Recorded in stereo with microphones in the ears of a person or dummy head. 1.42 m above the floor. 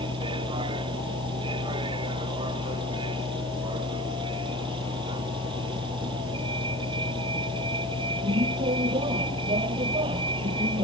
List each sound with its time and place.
0.0 s a vehicle: 25° right (ahead or behind)